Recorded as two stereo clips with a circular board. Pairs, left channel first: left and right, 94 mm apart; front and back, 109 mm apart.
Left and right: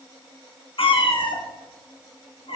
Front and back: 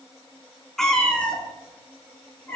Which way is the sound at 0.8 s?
85° left.